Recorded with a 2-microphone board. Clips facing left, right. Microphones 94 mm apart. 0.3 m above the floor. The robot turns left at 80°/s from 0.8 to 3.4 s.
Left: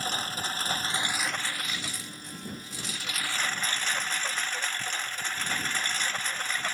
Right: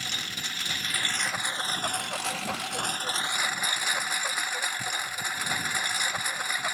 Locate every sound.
0.0 s a lawn mower: 35° left; by 6.7 s 170° right